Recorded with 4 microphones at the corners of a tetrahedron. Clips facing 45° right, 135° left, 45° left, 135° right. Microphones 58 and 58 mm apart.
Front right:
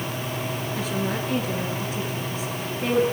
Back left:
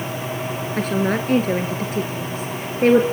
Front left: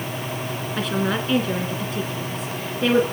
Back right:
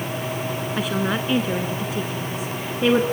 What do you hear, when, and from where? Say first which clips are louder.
0.8 s a woman speaking: back left 8 dB, front left 1 dB; 140° left, 1.8 m